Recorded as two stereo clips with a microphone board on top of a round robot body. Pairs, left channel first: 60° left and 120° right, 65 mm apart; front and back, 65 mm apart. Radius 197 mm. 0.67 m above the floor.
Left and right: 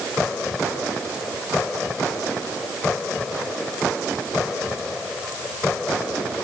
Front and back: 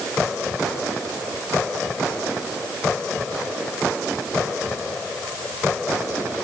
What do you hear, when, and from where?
Only background noise.